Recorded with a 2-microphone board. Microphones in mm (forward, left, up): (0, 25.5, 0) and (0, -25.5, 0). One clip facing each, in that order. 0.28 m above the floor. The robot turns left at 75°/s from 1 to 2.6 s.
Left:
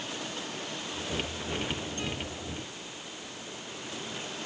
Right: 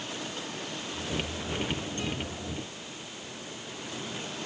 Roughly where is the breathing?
No breathing in this recording.